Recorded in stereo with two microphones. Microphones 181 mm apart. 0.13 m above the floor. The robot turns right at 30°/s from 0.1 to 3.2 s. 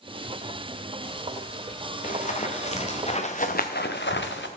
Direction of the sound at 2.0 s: 45° left (ahead or behind).